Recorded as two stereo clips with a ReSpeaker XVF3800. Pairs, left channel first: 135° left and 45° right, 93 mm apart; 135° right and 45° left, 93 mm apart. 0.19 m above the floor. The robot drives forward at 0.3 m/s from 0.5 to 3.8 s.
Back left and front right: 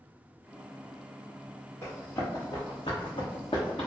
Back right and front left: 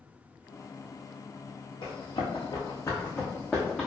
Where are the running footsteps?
165° right, 1.3 m; by 3.9 s 130° left, 1.0 m.